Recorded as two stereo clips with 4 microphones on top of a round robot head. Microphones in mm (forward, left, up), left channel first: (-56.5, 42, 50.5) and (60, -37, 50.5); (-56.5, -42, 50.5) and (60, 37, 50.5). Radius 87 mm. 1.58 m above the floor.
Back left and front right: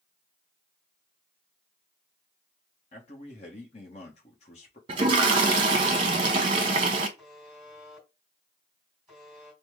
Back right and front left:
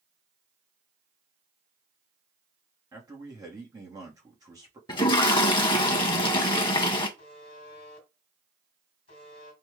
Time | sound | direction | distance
2.9 | a man speaking | 100° left | 1.1 m
4.9 | a toilet flushing | 90° right | 0.8 m
7.2 | a buzzer | 120° right | 1.6 m